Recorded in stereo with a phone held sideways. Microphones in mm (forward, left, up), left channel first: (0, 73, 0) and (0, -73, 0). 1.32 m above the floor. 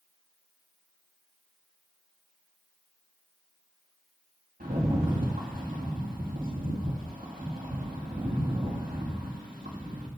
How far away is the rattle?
About 2 m.